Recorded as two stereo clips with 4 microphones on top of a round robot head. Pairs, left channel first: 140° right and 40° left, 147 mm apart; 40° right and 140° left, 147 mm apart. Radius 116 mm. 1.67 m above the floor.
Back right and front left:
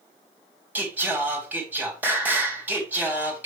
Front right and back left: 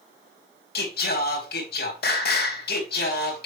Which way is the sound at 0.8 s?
35° right.